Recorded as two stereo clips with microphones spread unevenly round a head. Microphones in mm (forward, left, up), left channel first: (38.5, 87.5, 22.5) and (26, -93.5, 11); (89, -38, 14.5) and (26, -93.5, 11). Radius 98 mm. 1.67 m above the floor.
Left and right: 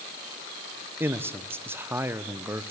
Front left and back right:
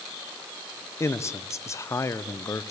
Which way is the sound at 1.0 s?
15° right.